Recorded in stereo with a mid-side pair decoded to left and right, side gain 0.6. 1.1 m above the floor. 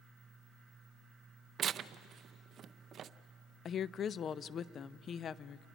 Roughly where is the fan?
Ahead.